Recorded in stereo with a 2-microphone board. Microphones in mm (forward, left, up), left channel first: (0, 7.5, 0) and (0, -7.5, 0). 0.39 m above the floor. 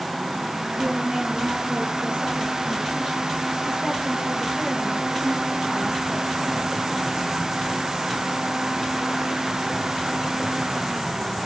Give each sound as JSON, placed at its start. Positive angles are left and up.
{"t": 0.8, "sound": "a woman speaking", "side_deg": -80, "distance_m": 7.5}